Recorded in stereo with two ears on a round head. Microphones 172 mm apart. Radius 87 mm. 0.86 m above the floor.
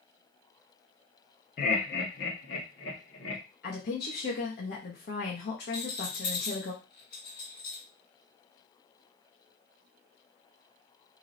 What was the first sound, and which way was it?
Laughter, 45° left (ahead or behind).